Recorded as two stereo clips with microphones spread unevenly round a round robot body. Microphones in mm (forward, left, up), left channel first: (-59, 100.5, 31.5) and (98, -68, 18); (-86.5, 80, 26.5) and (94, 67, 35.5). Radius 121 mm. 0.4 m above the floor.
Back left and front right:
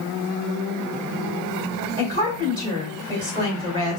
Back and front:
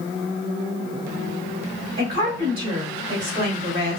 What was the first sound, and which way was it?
A woman speaking, 20° left.